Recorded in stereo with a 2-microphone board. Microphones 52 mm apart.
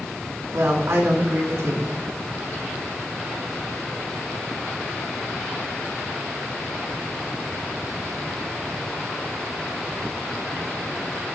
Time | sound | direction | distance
0.5 | a woman speaking | 65° right (ahead or behind) | 3 m